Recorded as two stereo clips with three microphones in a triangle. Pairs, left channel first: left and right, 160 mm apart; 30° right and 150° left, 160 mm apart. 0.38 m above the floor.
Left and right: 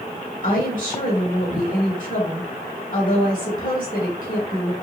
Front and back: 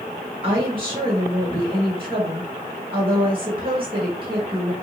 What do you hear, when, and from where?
0.4 s a woman speaking: 100° left, 1.4 m